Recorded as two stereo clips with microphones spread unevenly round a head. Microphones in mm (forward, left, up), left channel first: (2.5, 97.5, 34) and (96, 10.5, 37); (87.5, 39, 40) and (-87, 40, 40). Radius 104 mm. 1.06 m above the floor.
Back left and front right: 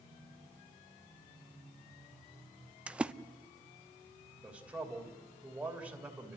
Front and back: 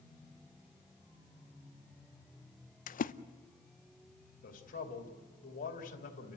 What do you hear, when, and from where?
2.9 s a splash: 40° left, 0.7 m
4.4 s a man speaking: 35° left, 3 m